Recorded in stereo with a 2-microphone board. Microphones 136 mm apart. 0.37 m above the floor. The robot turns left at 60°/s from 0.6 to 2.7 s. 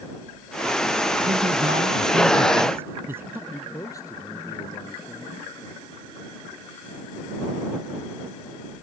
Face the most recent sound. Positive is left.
turn(degrees=25)  # may be behind; listen again after turning